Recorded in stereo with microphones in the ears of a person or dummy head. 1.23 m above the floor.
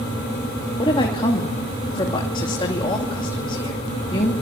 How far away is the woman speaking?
About 2.5 m.